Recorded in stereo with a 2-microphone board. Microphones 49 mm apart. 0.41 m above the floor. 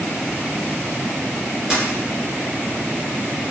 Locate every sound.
1.7 s a dropped coin: 15° right (ahead or behind), 1.6 m